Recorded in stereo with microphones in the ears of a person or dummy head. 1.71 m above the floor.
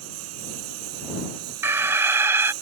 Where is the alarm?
15° right (ahead or behind).